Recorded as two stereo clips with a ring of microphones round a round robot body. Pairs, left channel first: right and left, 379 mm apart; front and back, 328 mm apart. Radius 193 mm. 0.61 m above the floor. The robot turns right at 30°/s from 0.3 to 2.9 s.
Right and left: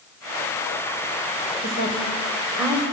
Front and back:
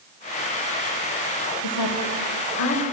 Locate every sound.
1.6 s a woman speaking: 25° right, 3 m; by 2.8 s 10° left, 3 m